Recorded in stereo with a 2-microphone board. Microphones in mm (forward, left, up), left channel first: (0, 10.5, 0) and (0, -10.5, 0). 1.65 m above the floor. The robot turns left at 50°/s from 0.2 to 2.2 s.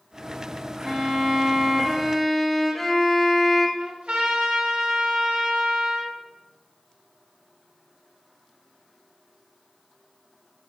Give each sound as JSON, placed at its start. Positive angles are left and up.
{"t": 0.8, "sound": "a violin", "side_deg": -15, "distance_m": 1.0}
{"t": 3.8, "sound": "a trumpet", "side_deg": -65, "distance_m": 1.9}